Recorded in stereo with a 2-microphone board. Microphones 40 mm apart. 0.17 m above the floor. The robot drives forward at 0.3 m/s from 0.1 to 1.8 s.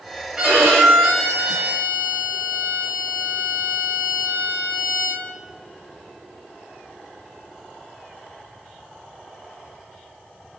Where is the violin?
25° right (ahead or behind), 5.5 m.